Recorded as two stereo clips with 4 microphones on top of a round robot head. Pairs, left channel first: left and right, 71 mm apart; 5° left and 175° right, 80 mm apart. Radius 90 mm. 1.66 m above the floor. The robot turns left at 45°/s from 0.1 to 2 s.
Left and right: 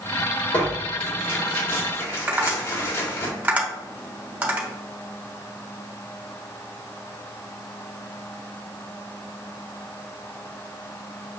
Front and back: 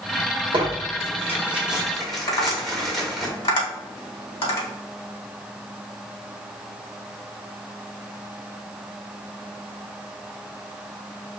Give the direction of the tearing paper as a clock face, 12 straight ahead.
7 o'clock.